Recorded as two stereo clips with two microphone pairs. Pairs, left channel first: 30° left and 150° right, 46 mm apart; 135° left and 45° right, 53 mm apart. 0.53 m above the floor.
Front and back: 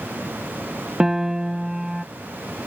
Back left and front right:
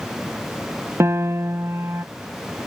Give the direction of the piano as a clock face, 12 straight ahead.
2 o'clock.